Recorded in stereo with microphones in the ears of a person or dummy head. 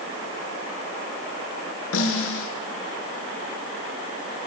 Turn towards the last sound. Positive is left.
turn(degrees=80)